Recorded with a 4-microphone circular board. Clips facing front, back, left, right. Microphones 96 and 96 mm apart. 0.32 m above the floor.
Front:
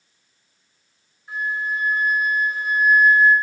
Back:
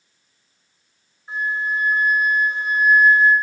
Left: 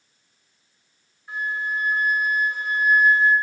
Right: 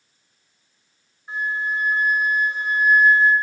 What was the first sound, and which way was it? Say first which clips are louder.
A flute: back 2 dB, right 2 dB; 135° right.